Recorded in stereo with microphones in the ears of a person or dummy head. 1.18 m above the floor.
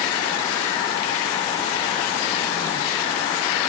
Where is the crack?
No crack in this recording.